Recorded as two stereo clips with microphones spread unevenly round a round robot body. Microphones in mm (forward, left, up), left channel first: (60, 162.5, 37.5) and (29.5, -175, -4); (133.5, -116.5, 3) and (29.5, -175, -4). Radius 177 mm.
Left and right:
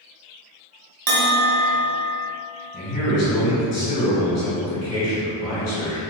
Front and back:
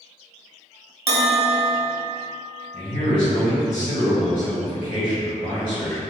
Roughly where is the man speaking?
Ahead left.